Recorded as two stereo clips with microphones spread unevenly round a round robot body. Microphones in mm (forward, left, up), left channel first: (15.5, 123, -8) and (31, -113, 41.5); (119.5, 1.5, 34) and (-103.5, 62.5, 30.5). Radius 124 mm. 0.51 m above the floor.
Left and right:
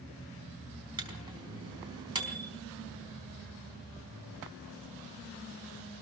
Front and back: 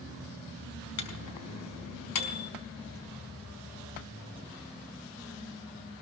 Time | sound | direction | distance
1.0 | a microwave | 10° right | 4.5 m